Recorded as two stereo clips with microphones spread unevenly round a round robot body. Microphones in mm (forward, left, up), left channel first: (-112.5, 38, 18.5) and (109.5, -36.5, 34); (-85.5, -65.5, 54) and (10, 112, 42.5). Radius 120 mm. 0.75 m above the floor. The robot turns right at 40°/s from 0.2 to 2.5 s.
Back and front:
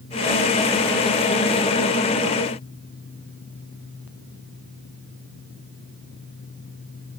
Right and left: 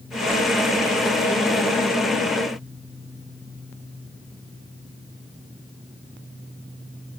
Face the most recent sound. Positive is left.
No sound to turn to.